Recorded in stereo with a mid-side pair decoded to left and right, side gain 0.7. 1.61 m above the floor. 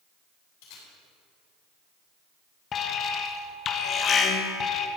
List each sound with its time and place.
0.6 s a camera shutter: 70° left, 5 m
2.7 s an alarm: 40° left, 1.2 m